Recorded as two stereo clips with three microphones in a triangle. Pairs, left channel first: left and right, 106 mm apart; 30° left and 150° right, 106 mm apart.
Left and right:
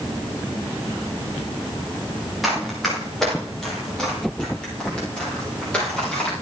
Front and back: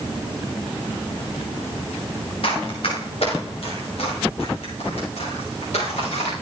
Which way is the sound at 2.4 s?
Straight ahead.